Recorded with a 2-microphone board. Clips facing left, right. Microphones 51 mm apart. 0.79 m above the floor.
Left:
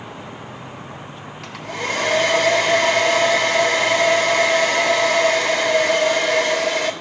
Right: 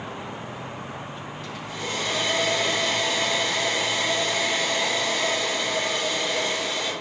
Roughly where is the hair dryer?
Left.